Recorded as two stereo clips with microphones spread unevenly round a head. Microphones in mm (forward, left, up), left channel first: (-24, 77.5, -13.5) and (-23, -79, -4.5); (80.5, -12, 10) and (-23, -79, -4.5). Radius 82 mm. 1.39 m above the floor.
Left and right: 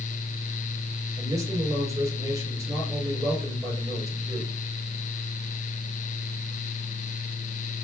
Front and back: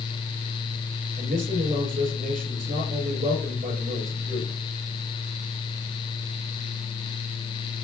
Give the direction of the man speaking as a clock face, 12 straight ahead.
5 o'clock.